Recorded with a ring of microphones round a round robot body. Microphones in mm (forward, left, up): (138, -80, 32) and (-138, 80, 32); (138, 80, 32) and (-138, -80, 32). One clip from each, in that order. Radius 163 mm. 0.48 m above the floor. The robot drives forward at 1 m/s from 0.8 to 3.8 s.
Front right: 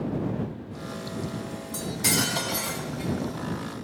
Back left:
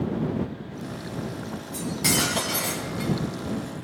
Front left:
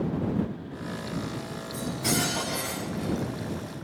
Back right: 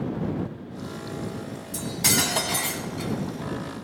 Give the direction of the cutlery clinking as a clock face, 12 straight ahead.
3 o'clock.